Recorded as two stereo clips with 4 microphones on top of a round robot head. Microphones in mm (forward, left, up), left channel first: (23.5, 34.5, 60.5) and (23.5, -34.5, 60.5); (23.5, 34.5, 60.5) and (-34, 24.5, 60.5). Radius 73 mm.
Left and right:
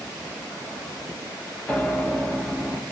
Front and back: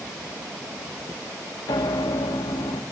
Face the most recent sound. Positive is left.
turn(degrees=15)